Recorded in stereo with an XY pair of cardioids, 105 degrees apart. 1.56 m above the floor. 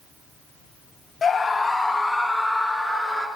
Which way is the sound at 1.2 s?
40° left.